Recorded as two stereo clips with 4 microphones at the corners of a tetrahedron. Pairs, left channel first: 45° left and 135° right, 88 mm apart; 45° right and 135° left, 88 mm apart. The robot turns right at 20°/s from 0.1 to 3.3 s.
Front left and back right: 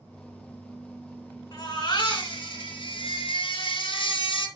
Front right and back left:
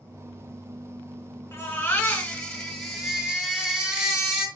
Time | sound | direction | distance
1.5 | a baby crying | 15° left | 3.5 m